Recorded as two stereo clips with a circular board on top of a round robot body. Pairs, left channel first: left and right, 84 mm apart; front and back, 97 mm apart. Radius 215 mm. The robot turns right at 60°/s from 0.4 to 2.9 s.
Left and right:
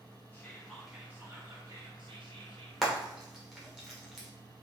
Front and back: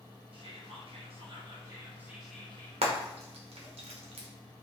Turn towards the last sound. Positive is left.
turn(degrees=-175)